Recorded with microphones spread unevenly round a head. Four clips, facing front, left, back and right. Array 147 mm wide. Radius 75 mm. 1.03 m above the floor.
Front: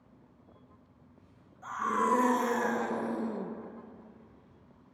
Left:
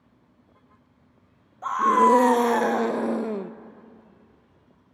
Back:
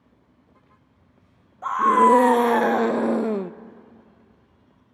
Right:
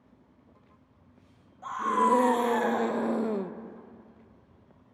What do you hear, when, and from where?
1.6 s a scream: 145° left, 1.5 m; by 3.5 s straight behind, 0.6 m